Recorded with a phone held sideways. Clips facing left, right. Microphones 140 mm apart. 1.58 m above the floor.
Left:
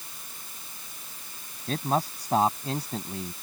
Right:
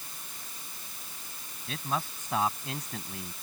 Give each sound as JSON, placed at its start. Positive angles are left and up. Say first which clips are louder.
{"t": 1.7, "sound": "a man speaking", "louder": "left 7 dB", "side_deg": 40}